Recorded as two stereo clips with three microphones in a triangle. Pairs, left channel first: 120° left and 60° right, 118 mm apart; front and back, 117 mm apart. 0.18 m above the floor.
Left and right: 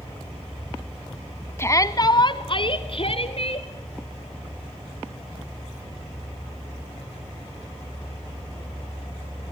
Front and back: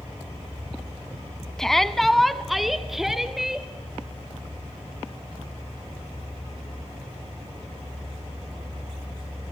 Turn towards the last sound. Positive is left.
turn(degrees=95)